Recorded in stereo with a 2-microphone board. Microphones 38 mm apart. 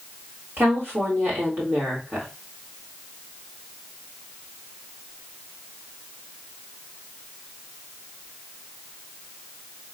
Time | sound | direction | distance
0.6 | a woman speaking | 65° right (ahead or behind) | 1.8 m